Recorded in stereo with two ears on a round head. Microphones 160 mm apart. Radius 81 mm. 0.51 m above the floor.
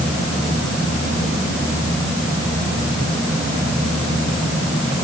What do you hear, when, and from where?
Only background noise.